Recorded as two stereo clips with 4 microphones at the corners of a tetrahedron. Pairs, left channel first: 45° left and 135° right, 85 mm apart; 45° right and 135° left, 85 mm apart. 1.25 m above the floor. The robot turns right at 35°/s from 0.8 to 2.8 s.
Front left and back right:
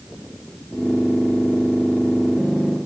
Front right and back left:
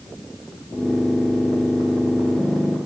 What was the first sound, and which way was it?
Only background noise.